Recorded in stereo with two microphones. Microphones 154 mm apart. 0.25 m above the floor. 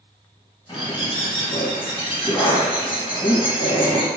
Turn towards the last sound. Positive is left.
turn(degrees=35)  # may be behind; listen again after turning